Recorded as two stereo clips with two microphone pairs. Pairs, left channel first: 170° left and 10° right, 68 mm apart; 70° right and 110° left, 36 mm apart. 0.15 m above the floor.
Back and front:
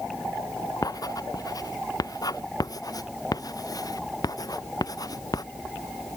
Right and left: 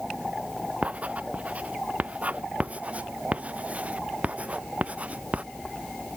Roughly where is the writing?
Behind left.